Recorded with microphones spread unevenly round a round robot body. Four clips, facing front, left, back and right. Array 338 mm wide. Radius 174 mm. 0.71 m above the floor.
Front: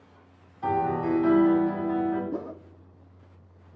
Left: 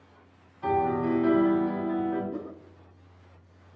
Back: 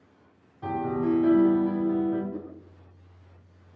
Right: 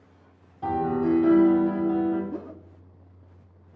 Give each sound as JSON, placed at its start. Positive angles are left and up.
{"t": 0.6, "sound": "a piano", "azimuth_deg": -115, "distance_m": 4.0}
{"t": 2.3, "sound": "a whoosh", "azimuth_deg": -15, "distance_m": 0.8}